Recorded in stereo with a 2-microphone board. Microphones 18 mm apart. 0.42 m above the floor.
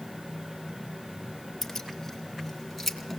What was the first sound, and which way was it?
Keys jangling, 10° left (ahead or behind).